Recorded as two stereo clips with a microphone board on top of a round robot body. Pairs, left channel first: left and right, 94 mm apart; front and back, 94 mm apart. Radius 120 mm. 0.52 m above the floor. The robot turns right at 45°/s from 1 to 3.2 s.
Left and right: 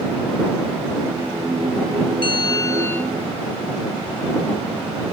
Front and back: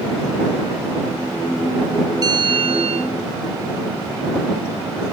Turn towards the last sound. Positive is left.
turn(degrees=175)